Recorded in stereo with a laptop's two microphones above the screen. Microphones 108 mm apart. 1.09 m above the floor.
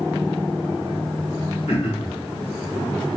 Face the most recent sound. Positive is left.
turn(degrees=70)  # may be behind; listen again after turning